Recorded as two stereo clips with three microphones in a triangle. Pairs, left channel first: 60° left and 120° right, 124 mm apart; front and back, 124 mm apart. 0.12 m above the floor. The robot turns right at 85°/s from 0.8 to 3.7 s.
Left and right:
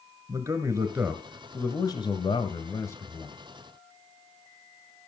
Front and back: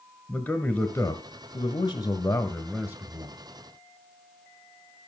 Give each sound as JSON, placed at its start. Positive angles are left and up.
{"t": 0.3, "sound": "a man speaking", "azimuth_deg": -70, "distance_m": 1.4}